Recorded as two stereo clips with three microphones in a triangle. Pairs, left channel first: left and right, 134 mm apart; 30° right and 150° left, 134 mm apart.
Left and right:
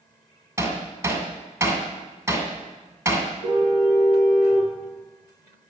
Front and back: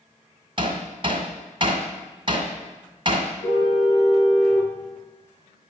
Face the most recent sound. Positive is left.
turn(degrees=-70)